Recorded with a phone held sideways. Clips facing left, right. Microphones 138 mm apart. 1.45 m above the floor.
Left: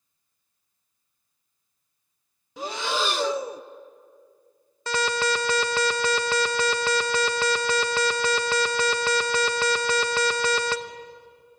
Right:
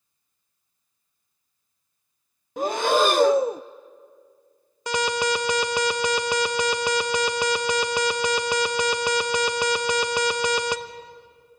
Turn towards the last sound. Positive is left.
turn(degrees=-15)  # may be behind; listen again after turning